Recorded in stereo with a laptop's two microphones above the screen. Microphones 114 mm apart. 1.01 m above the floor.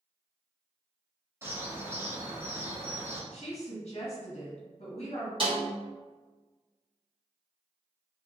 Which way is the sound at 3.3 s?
55° left (ahead or behind).